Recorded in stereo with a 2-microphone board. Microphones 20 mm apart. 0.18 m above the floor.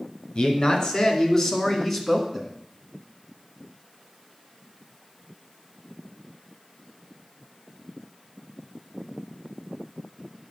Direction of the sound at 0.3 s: 45° left (ahead or behind).